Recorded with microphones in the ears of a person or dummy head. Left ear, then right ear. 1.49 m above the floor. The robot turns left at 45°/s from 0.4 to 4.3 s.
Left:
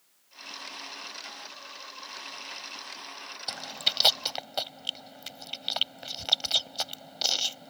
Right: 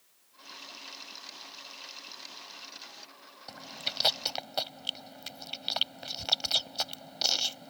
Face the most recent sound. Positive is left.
turn(degrees=5)  # may be behind; listen again after turning